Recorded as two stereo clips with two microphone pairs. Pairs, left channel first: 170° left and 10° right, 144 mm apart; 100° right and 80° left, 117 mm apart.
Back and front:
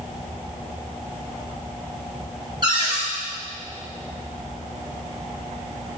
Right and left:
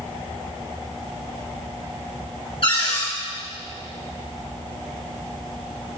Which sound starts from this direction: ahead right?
A cupboard door, at 2.6 s.